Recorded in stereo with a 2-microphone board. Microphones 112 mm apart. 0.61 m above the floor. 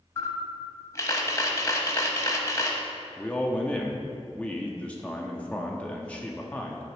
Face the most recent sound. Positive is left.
turn(degrees=10)  # may be behind; listen again after turning